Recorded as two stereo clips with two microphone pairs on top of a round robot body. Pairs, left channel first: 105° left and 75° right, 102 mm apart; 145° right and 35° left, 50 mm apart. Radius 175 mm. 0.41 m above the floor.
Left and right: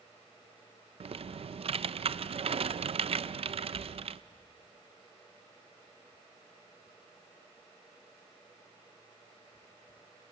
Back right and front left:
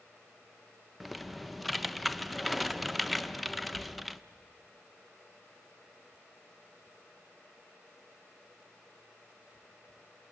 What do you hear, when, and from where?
1.0 s typing on a keyboard: 50° right, 0.5 m